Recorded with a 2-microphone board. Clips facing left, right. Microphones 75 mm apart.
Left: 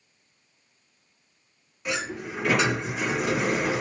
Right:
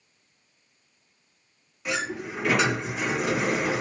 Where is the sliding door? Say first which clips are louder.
Right 1 dB; centre (ahead or behind), 4 m.